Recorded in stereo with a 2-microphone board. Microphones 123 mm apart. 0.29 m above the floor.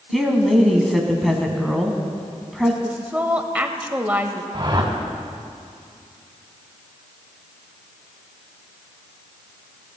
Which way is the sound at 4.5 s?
35° right (ahead or behind).